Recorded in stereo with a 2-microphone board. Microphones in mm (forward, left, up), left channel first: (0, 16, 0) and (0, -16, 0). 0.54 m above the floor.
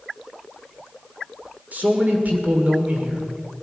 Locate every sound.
1.7 s a man speaking: 55° right (ahead or behind), 2 m